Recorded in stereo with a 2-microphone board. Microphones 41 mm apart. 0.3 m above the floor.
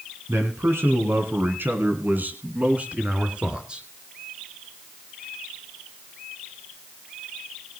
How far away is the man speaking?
About 2.5 m.